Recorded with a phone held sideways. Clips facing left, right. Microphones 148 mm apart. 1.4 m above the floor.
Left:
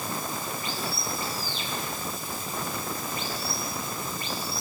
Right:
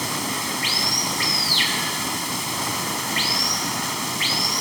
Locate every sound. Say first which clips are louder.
0.0 s running water: right 5 dB; 80° right